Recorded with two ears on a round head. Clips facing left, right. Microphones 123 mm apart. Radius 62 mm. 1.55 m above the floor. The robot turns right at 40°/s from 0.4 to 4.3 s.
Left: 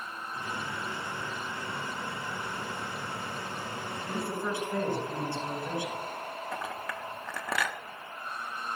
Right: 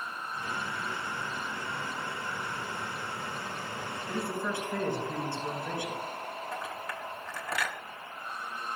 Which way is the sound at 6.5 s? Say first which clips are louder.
Left 1 dB; 65° left (ahead or behind).